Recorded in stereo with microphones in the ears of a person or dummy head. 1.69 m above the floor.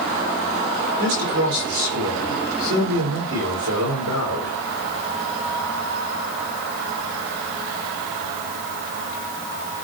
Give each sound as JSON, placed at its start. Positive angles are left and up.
{"t": 1.0, "sound": "a man speaking", "side_deg": -85, "distance_m": 5.5}